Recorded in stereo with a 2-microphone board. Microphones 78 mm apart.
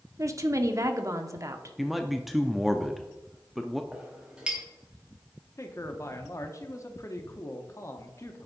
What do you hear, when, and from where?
0.2 s a woman speaking: 45° right (ahead or behind), 1.0 m
1.8 s a man speaking: centre (ahead or behind), 0.6 m
3.9 s a clink: 10° right (ahead or behind), 2.5 m
5.6 s a man speaking: 40° left (ahead or behind), 1.0 m